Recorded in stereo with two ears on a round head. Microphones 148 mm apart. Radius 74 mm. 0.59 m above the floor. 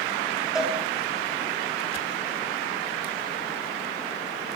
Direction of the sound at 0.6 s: 5° right (ahead or behind).